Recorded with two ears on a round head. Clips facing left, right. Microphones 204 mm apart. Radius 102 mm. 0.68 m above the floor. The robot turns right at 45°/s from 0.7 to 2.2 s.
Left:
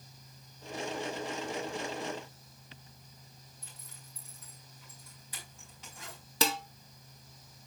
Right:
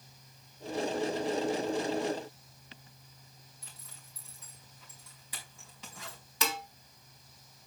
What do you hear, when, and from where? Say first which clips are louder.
3.6 s a zipper: left 1 dB; 65° right (ahead or behind), 4.5 m
6.4 s dishes clattering: left 4 dB; 30° left (ahead or behind), 1.4 m